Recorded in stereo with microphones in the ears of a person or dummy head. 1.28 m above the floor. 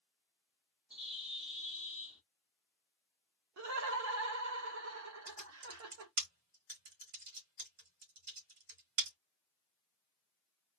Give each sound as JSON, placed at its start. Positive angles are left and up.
{"t": 0.9, "sound": "a bird", "side_deg": -5, "distance_m": 1.0}
{"t": 3.6, "sound": "laughter", "side_deg": -75, "distance_m": 0.8}
{"t": 5.3, "sound": "typing on a keyboard", "side_deg": -45, "distance_m": 1.5}